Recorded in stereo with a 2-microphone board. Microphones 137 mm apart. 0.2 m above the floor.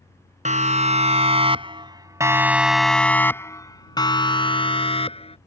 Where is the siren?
55° right (ahead or behind); by 5.4 s 45° left (ahead or behind).